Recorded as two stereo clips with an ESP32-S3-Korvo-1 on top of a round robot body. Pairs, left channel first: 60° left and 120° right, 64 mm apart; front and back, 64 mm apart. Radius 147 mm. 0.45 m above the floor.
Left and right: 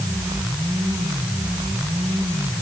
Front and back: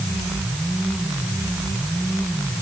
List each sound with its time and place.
Only background noise.